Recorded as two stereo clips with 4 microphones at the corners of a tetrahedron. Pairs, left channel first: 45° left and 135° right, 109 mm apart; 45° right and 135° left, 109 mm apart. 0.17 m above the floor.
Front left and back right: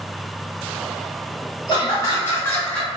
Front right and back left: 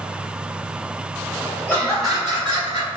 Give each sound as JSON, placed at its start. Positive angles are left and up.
{"t": 1.7, "sound": "laughter", "azimuth_deg": 20, "distance_m": 1.5}